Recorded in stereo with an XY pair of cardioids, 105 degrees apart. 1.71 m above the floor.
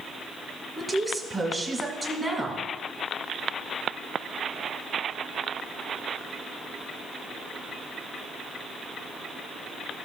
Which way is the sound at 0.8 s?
25° right.